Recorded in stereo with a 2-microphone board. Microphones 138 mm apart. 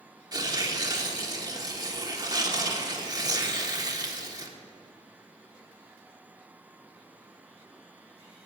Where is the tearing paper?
30° right (ahead or behind), 1.3 m.